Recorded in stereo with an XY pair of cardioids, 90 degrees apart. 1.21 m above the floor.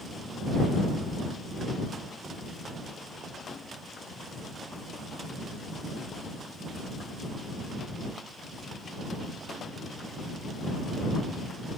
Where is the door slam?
No door slam in this recording.